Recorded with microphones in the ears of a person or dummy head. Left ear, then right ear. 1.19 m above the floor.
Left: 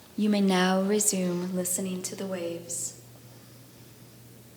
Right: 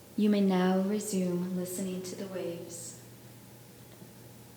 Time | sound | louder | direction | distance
0.2 | a woman speaking | left 3 dB | 5° right (ahead or behind) | 0.6 m